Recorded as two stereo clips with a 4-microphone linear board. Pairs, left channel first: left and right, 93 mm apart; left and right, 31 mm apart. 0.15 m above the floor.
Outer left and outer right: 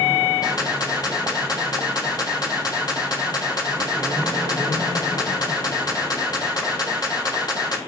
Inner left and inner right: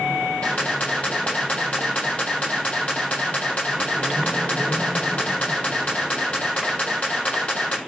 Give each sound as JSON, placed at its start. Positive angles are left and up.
{"t": 0.4, "sound": "a camera shutter", "side_deg": 45, "distance_m": 6.0}